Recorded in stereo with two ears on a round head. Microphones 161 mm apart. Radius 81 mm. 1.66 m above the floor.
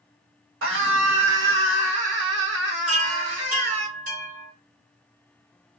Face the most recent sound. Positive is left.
turn(degrees=-45)  # may be behind; listen again after turning